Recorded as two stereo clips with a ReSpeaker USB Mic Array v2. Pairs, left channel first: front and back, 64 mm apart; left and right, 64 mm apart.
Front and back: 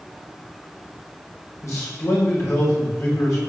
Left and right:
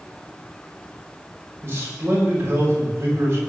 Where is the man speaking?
40° right, 6 m.